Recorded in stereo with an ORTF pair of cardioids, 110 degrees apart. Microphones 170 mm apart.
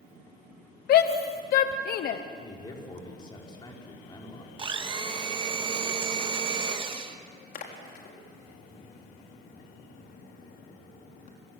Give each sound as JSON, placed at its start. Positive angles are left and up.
{"t": 0.9, "sound": "a shout", "azimuth_deg": 65, "distance_m": 1.2}
{"t": 2.3, "sound": "a man speaking", "azimuth_deg": 25, "distance_m": 6.0}
{"t": 4.6, "sound": "a blender", "azimuth_deg": -30, "distance_m": 2.0}
{"t": 7.5, "sound": "a splash", "azimuth_deg": 55, "distance_m": 4.0}